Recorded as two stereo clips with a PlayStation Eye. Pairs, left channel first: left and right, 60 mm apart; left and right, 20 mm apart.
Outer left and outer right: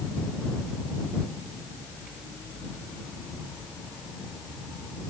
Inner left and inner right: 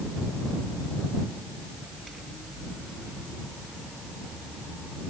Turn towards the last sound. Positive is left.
No sound to turn to.